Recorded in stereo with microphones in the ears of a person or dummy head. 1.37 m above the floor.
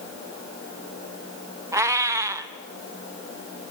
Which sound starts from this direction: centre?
A cat meowing, at 1.7 s.